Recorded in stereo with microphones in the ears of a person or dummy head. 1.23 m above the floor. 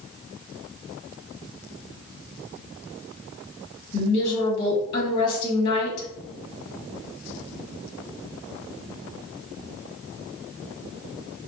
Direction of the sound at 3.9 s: 60° left (ahead or behind).